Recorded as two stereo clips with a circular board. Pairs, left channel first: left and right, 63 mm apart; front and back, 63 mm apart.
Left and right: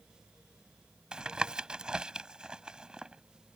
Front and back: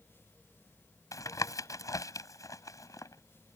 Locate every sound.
1.1 s tapping: 15° right